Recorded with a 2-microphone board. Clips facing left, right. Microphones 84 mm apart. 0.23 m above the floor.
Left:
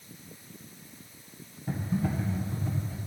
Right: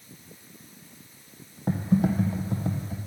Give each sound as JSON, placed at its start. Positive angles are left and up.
{"t": 1.7, "sound": "typing on a keyboard", "side_deg": -85, "distance_m": 2.0}